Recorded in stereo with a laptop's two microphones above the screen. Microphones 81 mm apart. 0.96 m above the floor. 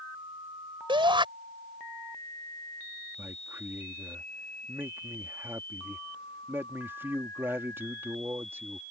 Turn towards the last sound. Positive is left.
turn(degrees=-30)  # may be behind; listen again after turning